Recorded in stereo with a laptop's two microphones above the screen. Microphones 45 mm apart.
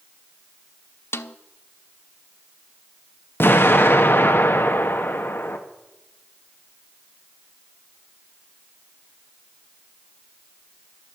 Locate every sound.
1.1 s a snare drum: 70° left (ahead or behind), 0.6 m
3.4 s an explosion: 55° left (ahead or behind), 1.5 m